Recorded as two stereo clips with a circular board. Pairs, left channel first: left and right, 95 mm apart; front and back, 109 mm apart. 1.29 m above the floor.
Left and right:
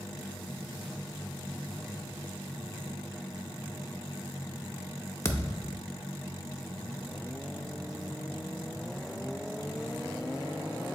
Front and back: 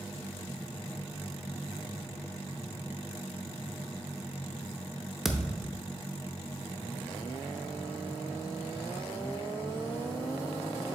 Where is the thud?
95° left, 0.6 m.